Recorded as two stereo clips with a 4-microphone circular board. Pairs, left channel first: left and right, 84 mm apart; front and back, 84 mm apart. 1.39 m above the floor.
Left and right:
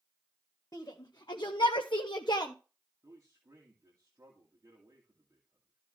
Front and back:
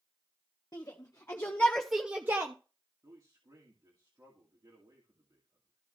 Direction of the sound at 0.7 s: 45° left.